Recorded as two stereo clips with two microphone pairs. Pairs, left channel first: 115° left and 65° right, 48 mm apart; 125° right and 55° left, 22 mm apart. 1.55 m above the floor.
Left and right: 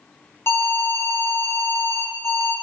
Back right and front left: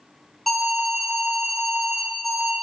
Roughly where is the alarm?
Behind left.